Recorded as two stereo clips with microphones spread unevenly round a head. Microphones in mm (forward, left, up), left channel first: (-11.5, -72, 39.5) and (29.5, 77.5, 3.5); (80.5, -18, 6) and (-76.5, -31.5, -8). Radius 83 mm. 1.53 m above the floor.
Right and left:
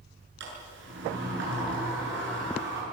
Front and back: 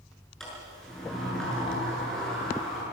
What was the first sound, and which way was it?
A sliding door, 95° left.